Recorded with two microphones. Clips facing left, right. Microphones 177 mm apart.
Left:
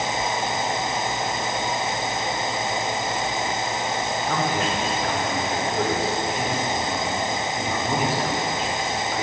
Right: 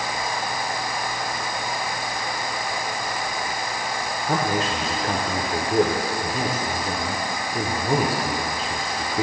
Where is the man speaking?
40° right (ahead or behind), 1.1 m.